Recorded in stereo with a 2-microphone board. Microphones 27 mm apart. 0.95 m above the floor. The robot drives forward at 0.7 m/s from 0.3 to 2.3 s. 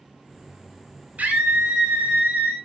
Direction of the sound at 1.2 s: 70° right (ahead or behind).